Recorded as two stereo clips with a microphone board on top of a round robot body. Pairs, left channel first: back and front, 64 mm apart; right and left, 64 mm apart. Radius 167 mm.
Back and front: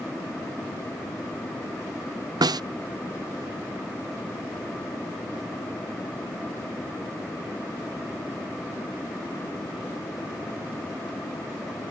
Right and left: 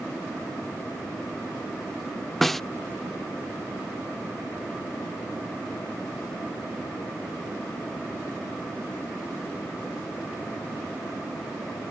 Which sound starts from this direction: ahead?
A snare drum, at 2.4 s.